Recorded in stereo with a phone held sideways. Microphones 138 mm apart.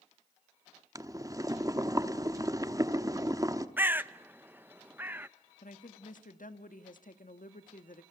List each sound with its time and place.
0.9 s boiling: 25° right (ahead or behind), 0.9 m
3.8 s a bird: 15° right (ahead or behind), 0.5 m
5.6 s a woman speaking: 75° left (ahead or behind), 1.3 m